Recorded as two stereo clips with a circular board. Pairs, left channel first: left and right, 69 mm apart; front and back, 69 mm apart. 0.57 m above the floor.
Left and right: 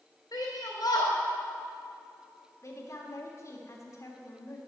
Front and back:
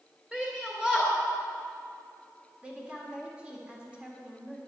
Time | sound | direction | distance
0.3 | a shout | 100° left | 2.5 m
2.6 | a woman speaking | 110° left | 1.8 m